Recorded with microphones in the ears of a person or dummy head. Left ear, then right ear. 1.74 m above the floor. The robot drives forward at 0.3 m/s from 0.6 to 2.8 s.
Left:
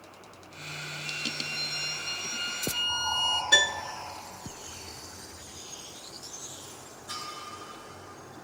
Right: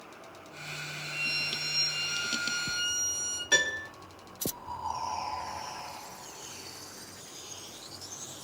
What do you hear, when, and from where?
1.0 s a violin: 65° right (ahead or behind), 3 m
3.5 s a piano: 25° right (ahead or behind), 1.8 m